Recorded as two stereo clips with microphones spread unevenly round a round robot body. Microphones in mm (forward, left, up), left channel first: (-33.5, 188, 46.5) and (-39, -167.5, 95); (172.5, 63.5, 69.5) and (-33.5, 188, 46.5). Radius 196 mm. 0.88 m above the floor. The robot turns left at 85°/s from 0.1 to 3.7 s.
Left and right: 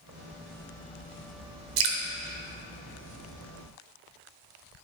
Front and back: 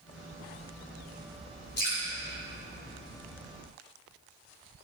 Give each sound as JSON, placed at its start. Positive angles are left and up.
{"t": 1.8, "sound": "dripping", "azimuth_deg": -90, "distance_m": 0.9}